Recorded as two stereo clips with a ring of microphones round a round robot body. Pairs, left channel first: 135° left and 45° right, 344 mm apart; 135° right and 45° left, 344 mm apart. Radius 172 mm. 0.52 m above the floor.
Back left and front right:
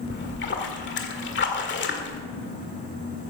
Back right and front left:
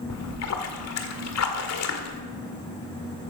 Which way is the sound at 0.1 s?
170° right.